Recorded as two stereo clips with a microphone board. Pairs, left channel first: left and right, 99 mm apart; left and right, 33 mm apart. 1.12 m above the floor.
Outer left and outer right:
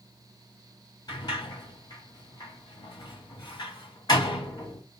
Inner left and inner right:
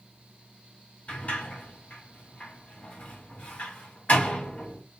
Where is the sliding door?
45° left (ahead or behind), 2.5 m.